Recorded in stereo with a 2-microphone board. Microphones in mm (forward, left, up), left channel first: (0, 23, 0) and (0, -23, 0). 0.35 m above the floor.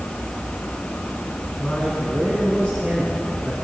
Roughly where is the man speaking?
Left.